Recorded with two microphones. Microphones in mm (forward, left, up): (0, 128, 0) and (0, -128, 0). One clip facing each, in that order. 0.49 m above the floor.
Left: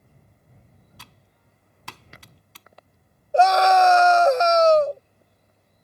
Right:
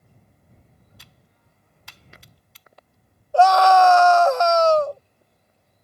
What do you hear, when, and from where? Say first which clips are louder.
1.0 s typing on a keyboard: left 2 dB; 80° left
3.3 s a scream: right 2 dB; 20° left (ahead or behind)